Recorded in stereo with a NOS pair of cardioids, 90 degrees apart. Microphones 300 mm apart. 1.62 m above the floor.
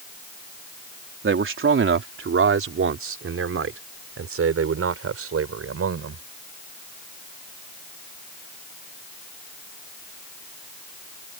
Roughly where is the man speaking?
Ahead right.